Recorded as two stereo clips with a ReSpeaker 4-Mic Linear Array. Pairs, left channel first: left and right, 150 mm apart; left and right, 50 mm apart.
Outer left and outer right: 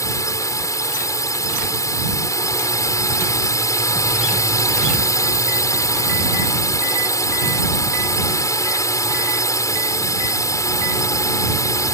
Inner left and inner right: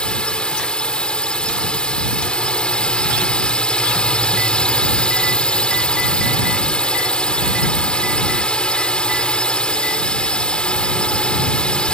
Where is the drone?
20° left (ahead or behind).